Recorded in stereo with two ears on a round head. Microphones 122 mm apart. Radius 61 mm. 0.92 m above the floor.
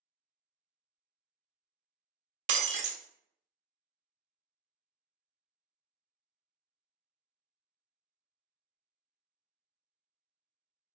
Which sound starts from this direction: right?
Breaking glass, at 2.5 s.